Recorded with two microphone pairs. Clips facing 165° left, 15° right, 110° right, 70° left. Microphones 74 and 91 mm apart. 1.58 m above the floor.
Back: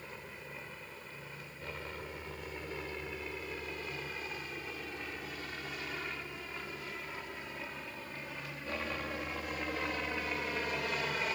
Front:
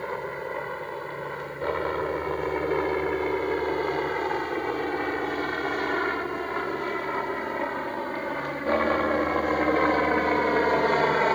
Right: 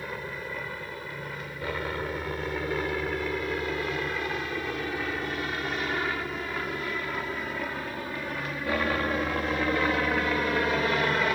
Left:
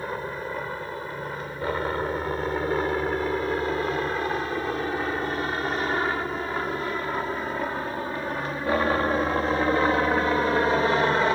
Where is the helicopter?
15° left.